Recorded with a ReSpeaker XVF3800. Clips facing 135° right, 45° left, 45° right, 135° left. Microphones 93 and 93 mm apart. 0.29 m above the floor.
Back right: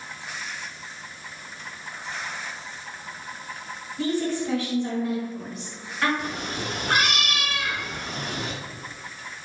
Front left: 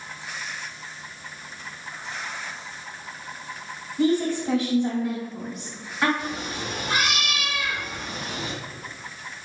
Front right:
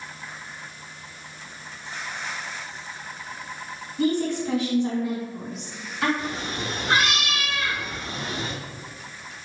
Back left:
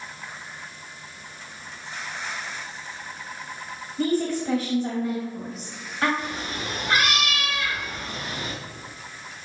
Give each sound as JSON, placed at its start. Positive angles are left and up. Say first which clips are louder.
{"t": 4.0, "sound": "a woman speaking", "louder": "front left 4 dB, even", "azimuth_deg": 110, "distance_m": 1.8}
{"t": 6.2, "sound": "a cat meowing", "louder": "even, front right 1 dB", "azimuth_deg": -105, "distance_m": 0.7}